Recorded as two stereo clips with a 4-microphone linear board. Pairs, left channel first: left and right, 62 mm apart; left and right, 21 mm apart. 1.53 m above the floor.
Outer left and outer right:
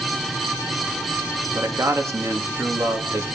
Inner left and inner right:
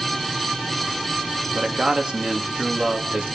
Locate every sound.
1.6 s a man speaking: 50° right (ahead or behind), 1.9 m